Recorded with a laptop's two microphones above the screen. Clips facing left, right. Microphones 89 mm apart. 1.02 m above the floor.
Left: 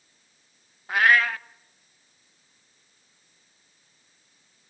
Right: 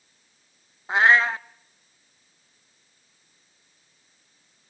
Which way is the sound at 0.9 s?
25° right (ahead or behind).